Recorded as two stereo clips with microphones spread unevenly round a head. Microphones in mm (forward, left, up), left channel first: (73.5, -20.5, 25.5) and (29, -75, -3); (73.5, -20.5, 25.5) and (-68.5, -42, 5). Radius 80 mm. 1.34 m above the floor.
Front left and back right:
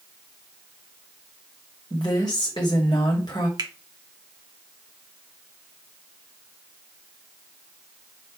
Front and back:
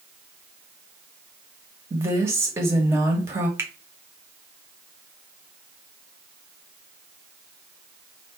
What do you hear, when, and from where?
1.9 s a woman speaking: 110° left, 1.2 m
3.6 s a finger snap: 95° right, 1.0 m